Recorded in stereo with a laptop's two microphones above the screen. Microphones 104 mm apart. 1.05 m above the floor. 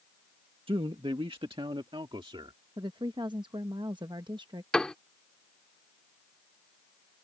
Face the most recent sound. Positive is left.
turn(degrees=5)  # may be behind; listen again after turning